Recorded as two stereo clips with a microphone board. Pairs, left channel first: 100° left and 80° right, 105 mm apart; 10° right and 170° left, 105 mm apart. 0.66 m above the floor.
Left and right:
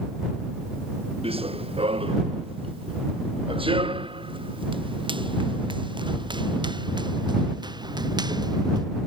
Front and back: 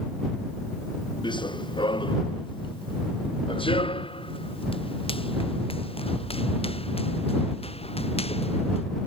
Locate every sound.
1.2 s running footsteps: 50° right; by 8.8 s 30° right